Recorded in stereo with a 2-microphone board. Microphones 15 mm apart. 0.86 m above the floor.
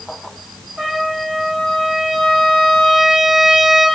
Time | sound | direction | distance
0.8 | a trumpet | 65° right (ahead or behind) | 1.9 m